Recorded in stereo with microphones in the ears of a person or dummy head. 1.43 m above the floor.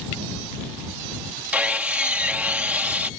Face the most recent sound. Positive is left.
turn(degrees=-5)  # may be behind; listen again after turning